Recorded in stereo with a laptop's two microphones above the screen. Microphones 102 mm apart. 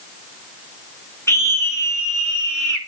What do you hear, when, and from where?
1.3 s a scream: 25° left (ahead or behind), 1.6 m